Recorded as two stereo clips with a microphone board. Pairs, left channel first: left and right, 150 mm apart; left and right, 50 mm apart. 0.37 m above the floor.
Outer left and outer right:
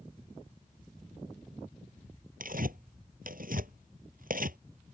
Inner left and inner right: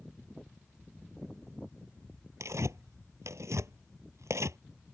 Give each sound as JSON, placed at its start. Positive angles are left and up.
{"t": 2.4, "sound": "tearing paper", "side_deg": -70}